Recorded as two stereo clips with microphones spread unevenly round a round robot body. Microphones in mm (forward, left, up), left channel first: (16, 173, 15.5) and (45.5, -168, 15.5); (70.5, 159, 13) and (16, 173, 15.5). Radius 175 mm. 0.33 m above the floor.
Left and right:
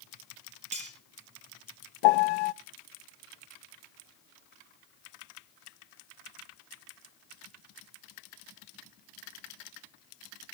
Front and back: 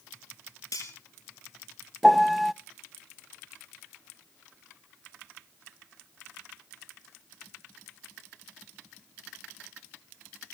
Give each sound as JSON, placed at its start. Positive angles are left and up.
{"t": 0.7, "sound": "cutlery clinking", "azimuth_deg": -15, "distance_m": 5.5}
{"t": 2.0, "sound": "a piano", "azimuth_deg": 75, "distance_m": 0.6}